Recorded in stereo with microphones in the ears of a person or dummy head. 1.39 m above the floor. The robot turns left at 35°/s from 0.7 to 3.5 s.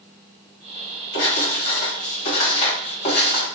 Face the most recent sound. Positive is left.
turn(degrees=30)